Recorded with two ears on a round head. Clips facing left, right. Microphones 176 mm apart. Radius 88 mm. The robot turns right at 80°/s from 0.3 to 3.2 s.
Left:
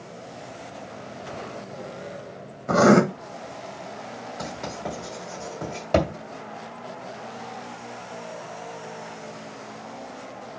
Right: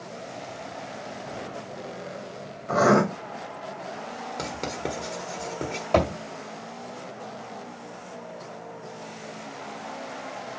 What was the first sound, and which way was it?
Writing, 65° left (ahead or behind).